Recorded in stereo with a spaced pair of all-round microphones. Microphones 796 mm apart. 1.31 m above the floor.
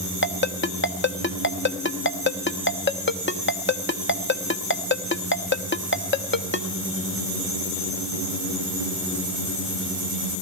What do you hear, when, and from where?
0.2 s a ringtone: 15° left (ahead or behind), 1.0 m